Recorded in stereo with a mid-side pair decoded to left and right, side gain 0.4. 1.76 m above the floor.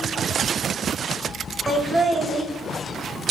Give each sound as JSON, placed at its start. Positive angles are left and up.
{"t": 1.7, "sound": "laughter", "azimuth_deg": -20, "distance_m": 0.7}